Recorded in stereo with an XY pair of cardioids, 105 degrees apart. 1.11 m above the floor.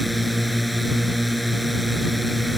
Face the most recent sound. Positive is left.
turn(degrees=0)